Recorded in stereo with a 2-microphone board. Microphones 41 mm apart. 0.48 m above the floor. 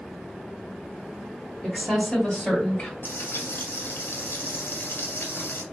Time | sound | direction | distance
1.6 | a woman speaking | 5° right (ahead or behind) | 1.6 m
3.0 | frying | 65° left (ahead or behind) | 1.8 m